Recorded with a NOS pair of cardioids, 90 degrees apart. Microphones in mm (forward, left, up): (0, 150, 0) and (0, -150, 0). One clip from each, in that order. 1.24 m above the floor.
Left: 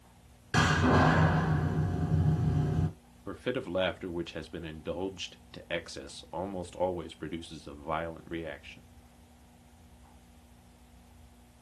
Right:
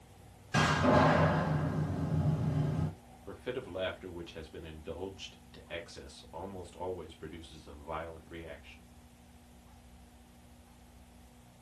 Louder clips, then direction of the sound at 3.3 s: Left 6 dB; 50° left.